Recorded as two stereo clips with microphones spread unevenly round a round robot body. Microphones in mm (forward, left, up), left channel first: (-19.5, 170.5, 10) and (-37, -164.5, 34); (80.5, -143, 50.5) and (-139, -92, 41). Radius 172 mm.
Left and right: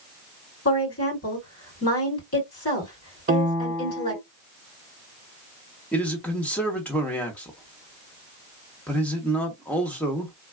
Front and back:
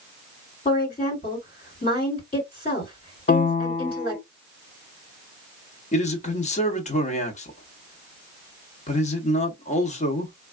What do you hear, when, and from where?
0.7 s a woman speaking: 50° left, 2.0 m
3.3 s a piano: 45° right, 0.6 m
5.9 s a man speaking: 10° left, 0.8 m